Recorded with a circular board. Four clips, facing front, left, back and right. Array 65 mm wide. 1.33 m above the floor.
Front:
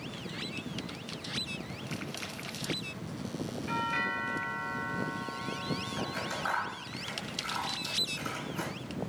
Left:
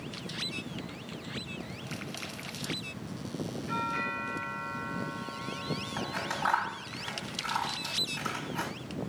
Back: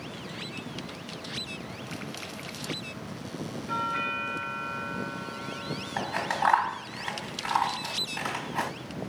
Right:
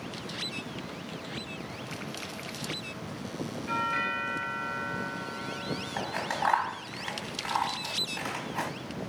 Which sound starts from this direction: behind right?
Scissors, at 6.0 s.